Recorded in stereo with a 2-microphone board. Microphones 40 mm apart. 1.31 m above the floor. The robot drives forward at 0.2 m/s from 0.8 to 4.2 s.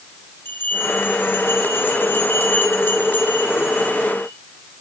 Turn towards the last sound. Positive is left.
turn(degrees=60)  # may be behind; listen again after turning